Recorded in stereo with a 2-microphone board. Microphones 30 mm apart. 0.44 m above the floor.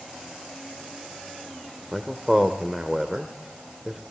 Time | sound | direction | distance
1.9 | a man speaking | 10° right (ahead or behind) | 1.1 m